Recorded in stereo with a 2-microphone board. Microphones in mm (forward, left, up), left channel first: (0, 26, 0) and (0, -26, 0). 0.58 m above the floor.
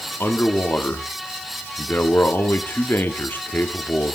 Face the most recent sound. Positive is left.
turn(degrees=40)  # may be behind; listen again after turning